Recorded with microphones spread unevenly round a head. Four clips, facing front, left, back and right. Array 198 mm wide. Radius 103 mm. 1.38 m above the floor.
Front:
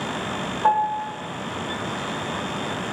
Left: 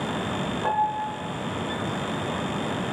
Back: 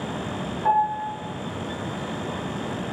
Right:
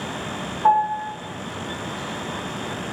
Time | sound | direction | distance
0.6 | a piano | 5° left | 1.2 m